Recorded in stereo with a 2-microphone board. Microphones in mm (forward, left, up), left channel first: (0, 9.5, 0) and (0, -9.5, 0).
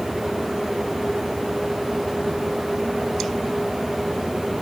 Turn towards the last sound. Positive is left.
No sound to turn to.